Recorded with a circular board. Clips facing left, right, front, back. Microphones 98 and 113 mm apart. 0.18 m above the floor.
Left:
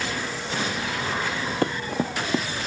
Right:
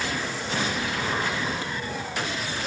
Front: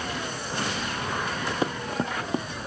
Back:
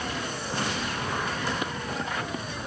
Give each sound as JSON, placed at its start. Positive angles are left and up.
{"t": 1.6, "sound": "running footsteps", "azimuth_deg": 55}